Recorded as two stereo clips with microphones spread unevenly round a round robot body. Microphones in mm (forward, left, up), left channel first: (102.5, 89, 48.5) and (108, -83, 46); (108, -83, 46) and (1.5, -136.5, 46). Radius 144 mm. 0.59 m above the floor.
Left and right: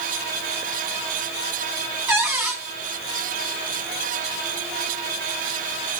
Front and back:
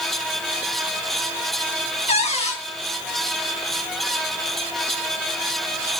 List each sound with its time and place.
2.1 s a cupboard door: 10° right, 4 m